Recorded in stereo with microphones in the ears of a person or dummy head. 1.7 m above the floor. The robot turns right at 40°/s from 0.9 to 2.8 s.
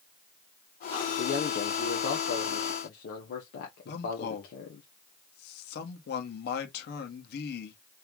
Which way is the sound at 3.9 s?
55° left (ahead or behind).